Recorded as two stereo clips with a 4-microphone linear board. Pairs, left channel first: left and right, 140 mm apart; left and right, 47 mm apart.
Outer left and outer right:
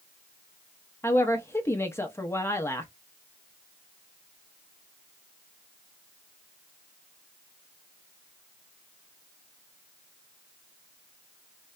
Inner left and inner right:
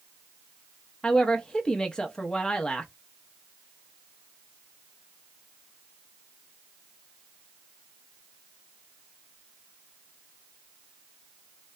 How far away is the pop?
I don't hear a pop.